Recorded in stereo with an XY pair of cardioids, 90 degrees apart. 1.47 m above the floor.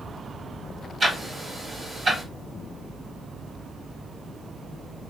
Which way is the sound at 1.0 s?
50° right.